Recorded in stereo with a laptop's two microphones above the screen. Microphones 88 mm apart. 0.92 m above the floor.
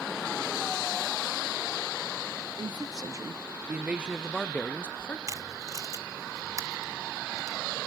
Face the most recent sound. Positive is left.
turn(degrees=-35)  # may be behind; listen again after turning